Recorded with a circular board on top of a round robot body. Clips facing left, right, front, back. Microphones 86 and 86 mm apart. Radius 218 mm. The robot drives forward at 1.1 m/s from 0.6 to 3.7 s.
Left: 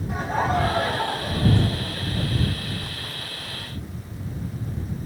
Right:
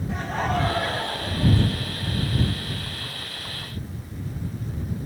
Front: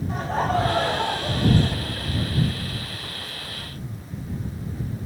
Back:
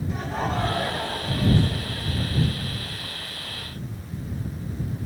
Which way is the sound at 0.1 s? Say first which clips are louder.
Left 3 dB, front 5 dB; 15° left.